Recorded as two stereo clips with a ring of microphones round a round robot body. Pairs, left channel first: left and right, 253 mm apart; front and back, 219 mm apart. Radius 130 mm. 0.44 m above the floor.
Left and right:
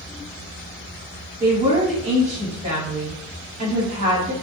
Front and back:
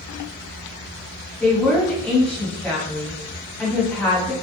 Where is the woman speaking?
75° right, 1.3 m.